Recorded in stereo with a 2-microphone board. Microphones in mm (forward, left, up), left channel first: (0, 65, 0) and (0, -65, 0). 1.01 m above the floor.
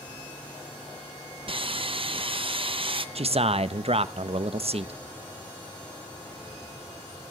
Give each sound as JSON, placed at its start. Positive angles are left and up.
{"t": 1.5, "sound": "sawing", "side_deg": -45, "distance_m": 0.7}
{"t": 3.1, "sound": "a man speaking", "side_deg": -55, "distance_m": 0.7}